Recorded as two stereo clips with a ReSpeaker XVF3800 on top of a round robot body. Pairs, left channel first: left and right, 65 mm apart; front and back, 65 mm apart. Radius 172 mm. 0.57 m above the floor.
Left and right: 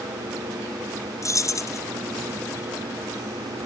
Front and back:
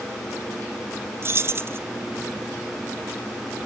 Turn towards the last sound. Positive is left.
turn(degrees=130)